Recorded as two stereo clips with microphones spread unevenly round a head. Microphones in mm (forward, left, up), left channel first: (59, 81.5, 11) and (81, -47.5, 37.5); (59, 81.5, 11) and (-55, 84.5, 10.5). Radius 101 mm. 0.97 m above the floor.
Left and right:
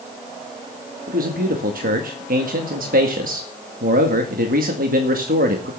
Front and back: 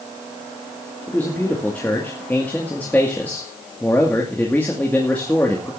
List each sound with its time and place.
1.1 s a man speaking: 80° right, 2 m